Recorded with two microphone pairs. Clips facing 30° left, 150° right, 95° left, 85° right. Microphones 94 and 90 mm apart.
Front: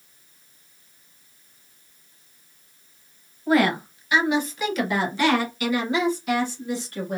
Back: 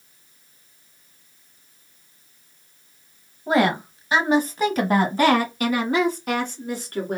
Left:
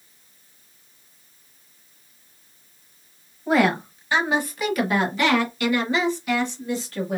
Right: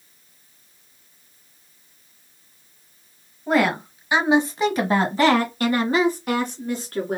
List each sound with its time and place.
3.5 s a woman speaking: 175° right, 1.0 m; by 7.2 s 115° right, 2.5 m